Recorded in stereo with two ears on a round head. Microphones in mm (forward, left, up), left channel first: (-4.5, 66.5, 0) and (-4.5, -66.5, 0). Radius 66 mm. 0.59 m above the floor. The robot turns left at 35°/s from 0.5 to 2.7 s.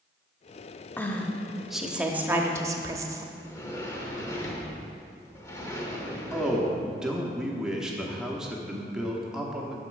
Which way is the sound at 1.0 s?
25° left.